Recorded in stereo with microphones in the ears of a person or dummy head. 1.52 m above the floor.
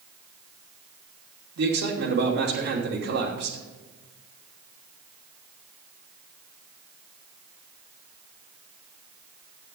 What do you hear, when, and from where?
1.6 s a man speaking: 55° right (ahead or behind), 3 m